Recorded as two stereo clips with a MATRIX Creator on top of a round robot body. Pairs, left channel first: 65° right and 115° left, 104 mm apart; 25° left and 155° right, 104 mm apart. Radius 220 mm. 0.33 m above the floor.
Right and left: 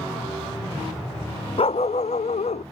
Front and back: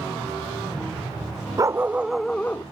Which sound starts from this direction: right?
A dog barking, at 1.6 s.